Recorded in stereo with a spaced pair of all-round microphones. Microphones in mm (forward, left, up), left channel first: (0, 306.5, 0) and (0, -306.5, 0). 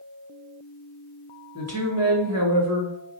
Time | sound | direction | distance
1.6 | a woman speaking | 25° right (ahead or behind) | 1.2 m